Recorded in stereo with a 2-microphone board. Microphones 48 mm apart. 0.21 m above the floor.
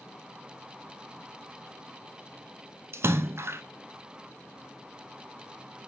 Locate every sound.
2.9 s a splash: 65° right (ahead or behind), 0.6 m